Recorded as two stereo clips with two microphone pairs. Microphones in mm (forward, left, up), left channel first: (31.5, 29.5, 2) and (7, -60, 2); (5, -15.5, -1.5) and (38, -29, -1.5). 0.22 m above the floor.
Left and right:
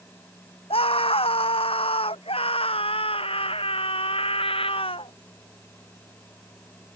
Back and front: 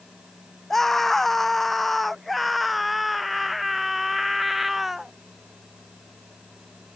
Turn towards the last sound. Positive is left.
turn(degrees=60)